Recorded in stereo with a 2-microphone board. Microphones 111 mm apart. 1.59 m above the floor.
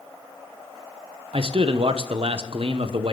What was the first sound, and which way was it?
A man speaking, 60° right (ahead or behind).